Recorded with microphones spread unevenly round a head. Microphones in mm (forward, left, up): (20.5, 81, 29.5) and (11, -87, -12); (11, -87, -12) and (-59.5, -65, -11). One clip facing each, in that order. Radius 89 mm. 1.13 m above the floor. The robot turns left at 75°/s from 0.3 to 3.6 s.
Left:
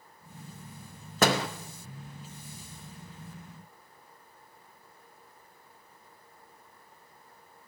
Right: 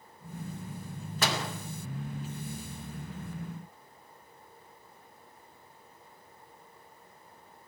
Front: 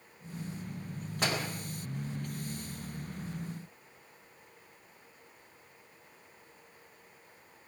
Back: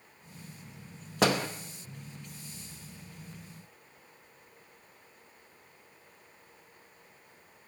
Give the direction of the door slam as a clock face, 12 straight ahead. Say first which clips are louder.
Left 7 dB, back 7 dB; 8 o'clock.